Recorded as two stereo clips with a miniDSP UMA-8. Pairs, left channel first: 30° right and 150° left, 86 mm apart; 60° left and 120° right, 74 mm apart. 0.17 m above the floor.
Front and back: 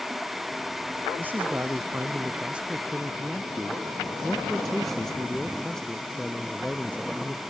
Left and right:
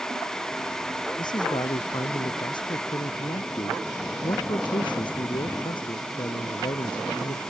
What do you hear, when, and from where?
1.2 s a man speaking: 80° left; by 7.4 s 45° left